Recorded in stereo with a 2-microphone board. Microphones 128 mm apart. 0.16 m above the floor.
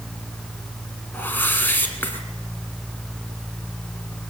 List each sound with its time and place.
1.1 s a whoosh: 15° left (ahead or behind), 1.2 m